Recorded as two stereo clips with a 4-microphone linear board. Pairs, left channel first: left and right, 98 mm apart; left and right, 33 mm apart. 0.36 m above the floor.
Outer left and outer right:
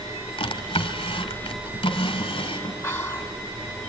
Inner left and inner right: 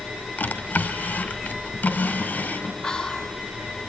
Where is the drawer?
65° left (ahead or behind), 1.3 m.